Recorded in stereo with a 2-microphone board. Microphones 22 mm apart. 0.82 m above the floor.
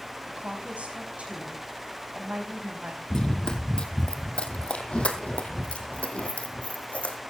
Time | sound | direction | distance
0.3 | a woman speaking | 75° right (ahead or behind) | 5 m
3.1 | running footsteps | 30° left (ahead or behind) | 1.7 m